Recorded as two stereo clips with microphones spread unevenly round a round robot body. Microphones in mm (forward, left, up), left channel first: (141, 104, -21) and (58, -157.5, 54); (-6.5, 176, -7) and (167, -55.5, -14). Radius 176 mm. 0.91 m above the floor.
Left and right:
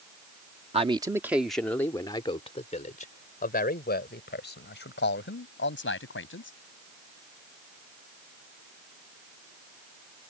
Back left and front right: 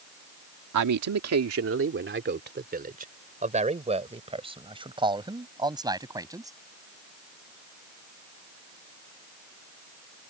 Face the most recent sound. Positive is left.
turn(degrees=25)